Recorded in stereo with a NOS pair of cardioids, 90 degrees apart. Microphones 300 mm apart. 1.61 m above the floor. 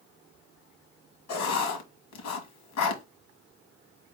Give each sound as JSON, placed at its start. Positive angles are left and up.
{"t": 1.3, "sound": "writing", "azimuth_deg": 65, "distance_m": 1.4}